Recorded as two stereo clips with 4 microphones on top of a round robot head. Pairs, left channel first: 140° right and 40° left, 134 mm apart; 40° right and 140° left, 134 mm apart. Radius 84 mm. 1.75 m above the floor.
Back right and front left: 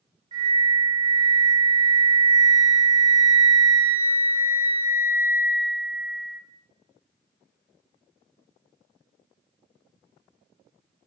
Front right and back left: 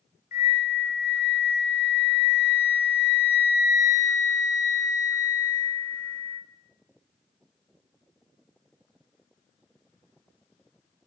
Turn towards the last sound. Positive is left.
turn(degrees=-10)